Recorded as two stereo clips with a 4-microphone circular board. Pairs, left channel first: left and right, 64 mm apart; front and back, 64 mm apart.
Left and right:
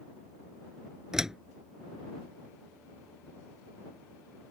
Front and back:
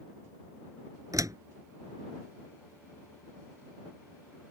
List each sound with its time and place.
1.1 s a door slam: 170° right